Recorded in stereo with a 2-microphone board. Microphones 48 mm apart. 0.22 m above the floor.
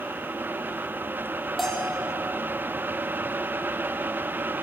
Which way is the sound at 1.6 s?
5° left (ahead or behind).